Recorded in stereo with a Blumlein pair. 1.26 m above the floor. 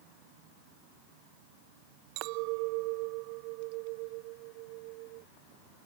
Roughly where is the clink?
Ahead right.